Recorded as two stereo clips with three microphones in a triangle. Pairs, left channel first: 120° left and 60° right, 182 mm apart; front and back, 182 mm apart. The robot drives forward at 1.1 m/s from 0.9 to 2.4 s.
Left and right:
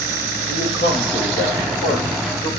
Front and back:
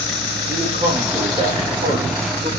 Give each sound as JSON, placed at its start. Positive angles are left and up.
{"t": 0.5, "sound": "a man speaking", "azimuth_deg": 120, "distance_m": 9.5}